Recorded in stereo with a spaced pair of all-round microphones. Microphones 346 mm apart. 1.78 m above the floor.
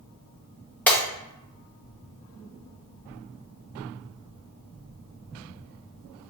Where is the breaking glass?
5° left (ahead or behind), 1.1 m.